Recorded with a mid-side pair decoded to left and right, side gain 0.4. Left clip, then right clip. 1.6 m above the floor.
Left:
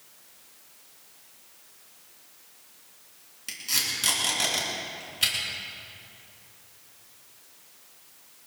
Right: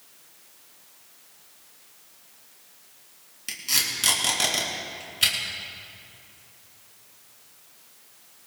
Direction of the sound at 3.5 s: 20° right.